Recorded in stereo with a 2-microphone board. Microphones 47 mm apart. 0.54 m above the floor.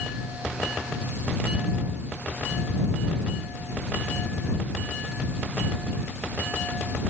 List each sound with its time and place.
Only background noise.